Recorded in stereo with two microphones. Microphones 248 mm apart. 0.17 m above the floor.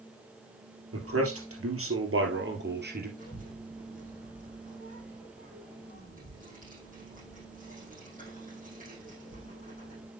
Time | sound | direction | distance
0.9 | a man speaking | 75° right (ahead or behind) | 3.5 m
3.2 | a child speaking | 35° right (ahead or behind) | 6 m